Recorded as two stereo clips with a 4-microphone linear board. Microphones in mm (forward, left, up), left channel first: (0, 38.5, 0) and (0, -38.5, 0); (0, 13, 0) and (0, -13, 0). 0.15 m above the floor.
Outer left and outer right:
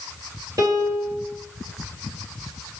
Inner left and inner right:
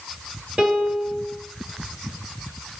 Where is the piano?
50° right (ahead or behind), 2.5 m.